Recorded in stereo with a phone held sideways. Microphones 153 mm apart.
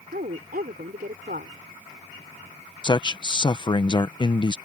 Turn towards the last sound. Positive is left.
turn(degrees=30)  # may be behind; listen again after turning